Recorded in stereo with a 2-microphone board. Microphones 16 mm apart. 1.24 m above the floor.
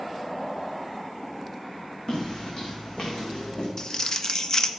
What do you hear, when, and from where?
2.1 s footsteps: 45° left (ahead or behind), 3.5 m; by 3.7 s 60° left (ahead or behind), 4 m
3.8 s crumpling: 40° left (ahead or behind), 0.8 m